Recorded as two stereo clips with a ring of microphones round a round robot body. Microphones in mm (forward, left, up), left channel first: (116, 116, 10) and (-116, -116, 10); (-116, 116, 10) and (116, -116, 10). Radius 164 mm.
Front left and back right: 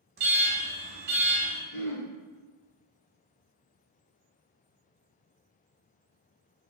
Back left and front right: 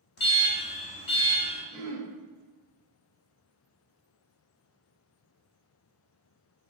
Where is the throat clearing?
60° left, 1.6 m.